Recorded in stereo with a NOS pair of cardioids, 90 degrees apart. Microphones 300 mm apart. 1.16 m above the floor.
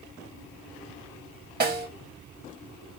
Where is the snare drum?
35° right, 0.7 m.